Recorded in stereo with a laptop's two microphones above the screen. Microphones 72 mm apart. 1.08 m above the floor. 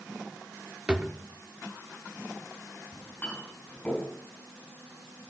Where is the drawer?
15° right (ahead or behind), 0.7 m.